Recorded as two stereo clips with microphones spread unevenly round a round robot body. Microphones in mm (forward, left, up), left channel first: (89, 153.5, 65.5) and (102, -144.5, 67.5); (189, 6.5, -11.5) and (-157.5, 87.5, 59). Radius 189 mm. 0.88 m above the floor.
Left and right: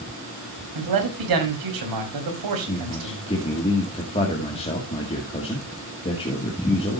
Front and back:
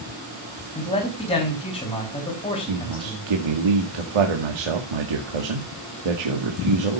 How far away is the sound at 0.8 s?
About 4.5 m.